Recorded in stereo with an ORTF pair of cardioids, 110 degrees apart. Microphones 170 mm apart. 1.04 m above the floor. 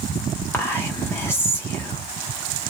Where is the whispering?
15° left, 0.6 m.